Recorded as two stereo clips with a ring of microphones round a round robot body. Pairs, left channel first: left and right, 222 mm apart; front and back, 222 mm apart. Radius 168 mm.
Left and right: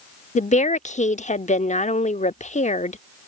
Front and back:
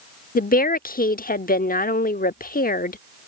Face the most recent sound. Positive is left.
turn(degrees=40)